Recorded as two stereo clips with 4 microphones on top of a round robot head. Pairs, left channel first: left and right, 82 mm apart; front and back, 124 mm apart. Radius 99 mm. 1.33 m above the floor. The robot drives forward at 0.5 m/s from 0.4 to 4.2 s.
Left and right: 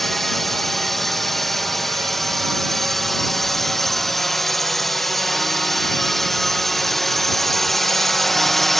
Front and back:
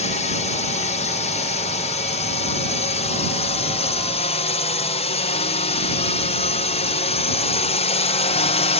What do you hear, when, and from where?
0.0 s a drone: straight ahead; by 8.8 s 5° left